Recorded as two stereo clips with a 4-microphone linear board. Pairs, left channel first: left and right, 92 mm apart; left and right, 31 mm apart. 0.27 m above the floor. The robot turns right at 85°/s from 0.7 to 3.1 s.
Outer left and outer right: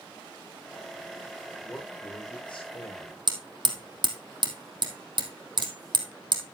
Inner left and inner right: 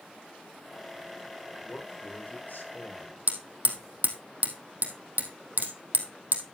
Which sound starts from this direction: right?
Hammering, at 3.3 s.